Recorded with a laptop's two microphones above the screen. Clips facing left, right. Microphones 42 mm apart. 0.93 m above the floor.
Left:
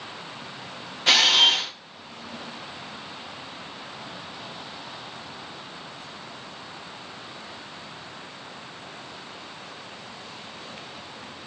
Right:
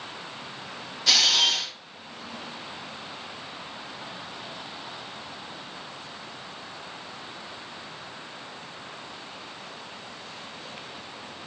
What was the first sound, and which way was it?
A camera shutter, 35° left (ahead or behind).